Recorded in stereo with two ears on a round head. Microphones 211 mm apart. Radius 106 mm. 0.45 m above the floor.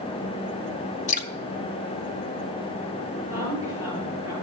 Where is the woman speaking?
15° right (ahead or behind), 8.5 m.